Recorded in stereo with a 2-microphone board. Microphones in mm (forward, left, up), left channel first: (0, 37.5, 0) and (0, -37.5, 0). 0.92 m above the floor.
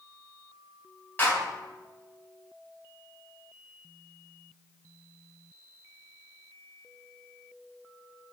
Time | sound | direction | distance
1.2 | a clap | 25° left (ahead or behind) | 3.5 m